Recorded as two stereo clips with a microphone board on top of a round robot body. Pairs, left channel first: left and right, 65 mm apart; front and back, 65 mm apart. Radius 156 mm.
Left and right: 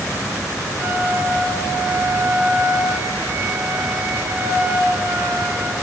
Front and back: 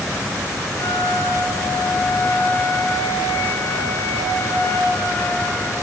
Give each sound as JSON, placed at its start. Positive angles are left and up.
{"t": 0.8, "sound": "a flute", "azimuth_deg": -40, "distance_m": 4.5}